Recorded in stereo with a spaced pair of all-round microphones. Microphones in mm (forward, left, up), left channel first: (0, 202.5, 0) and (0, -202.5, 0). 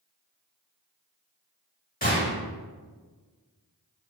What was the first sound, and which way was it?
A gunshot, 20° left (ahead or behind).